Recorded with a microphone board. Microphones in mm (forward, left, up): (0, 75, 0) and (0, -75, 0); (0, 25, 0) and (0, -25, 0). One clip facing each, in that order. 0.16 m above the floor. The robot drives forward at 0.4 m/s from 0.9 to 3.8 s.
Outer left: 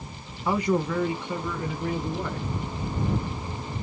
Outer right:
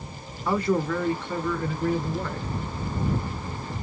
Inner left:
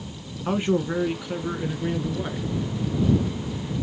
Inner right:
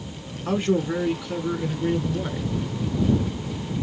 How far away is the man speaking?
About 1.3 m.